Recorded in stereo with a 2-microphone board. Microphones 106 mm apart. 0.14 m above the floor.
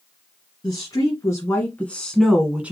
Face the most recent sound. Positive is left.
turn(degrees=-15)  # may be behind; listen again after turning